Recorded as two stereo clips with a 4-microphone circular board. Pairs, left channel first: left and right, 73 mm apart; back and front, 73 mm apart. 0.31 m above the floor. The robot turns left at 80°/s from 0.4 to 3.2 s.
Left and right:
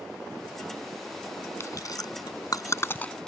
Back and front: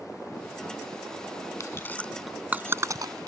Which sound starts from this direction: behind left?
Chewing, at 1.6 s.